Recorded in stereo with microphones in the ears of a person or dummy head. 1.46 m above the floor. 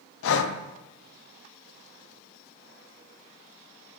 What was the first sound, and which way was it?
Breathing, 75° left (ahead or behind).